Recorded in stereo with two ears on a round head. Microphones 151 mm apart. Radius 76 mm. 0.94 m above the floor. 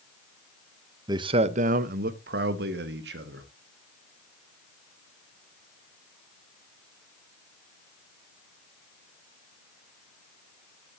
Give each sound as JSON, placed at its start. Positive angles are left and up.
{"t": 1.1, "sound": "a man speaking", "side_deg": -20, "distance_m": 0.7}